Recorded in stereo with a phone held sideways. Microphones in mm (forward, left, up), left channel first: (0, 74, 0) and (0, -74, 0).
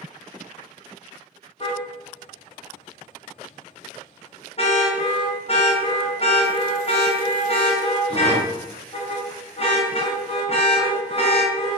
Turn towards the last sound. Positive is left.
turn(degrees=40)  # may be behind; listen again after turning